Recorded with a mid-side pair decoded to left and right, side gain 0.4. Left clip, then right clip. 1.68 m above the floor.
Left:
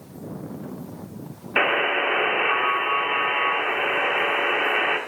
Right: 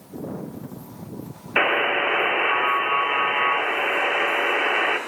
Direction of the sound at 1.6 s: 5° right.